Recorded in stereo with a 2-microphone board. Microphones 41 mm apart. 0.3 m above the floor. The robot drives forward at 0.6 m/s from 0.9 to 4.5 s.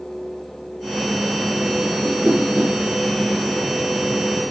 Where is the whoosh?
25° right (ahead or behind), 4.5 m.